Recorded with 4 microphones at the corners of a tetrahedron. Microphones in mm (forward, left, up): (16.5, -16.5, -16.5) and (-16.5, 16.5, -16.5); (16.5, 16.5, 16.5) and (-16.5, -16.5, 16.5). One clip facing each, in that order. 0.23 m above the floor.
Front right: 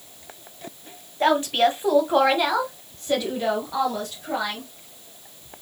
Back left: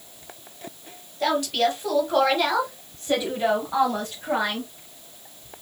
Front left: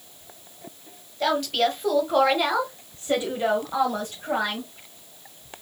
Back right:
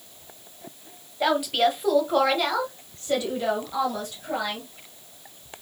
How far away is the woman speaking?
About 1.3 m.